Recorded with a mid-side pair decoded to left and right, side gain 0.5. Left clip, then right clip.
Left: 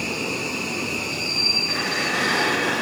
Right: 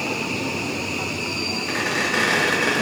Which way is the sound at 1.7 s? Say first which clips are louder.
Right 1 dB; 40° right.